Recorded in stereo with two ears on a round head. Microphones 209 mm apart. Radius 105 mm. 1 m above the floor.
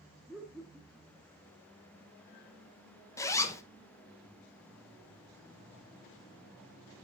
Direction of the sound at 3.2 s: 15° left (ahead or behind).